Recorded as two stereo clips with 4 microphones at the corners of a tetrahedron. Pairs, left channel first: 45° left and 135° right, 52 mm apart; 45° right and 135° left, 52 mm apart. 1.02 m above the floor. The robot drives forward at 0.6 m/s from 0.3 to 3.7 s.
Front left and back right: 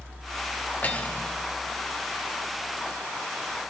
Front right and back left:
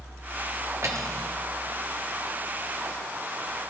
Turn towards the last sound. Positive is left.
turn(degrees=150)